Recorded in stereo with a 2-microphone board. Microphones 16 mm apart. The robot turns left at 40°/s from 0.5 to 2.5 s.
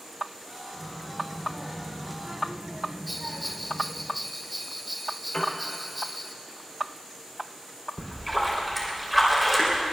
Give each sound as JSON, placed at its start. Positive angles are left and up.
{"t": 0.7, "sound": "a child speaking", "azimuth_deg": 30, "distance_m": 3.5}
{"t": 3.1, "sound": "a bell", "side_deg": -10, "distance_m": 0.6}
{"t": 5.3, "sound": "a piano", "side_deg": 55, "distance_m": 3.5}
{"t": 8.0, "sound": "a splash", "side_deg": 5, "distance_m": 3.5}